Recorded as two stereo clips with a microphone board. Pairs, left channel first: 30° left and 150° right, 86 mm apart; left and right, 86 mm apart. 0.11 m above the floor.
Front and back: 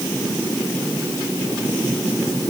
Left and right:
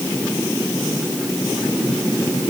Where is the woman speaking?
No woman speaking in this recording.